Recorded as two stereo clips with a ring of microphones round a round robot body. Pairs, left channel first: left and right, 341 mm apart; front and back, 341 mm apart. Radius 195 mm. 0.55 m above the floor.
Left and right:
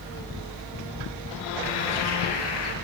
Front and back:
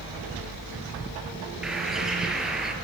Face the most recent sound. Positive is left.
turn(degrees=90)